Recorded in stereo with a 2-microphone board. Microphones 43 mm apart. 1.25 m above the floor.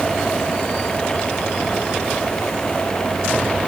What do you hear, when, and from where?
Only background noise.